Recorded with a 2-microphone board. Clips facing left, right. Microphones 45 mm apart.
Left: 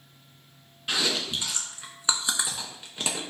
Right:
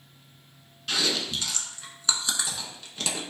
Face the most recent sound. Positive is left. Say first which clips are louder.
# even
turn(degrees=20)  # may be behind; listen again after turning